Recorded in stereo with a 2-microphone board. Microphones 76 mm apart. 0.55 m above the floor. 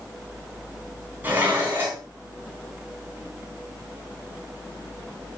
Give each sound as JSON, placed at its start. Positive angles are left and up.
{"t": 1.2, "sound": "dishes clattering", "side_deg": -25, "distance_m": 3.5}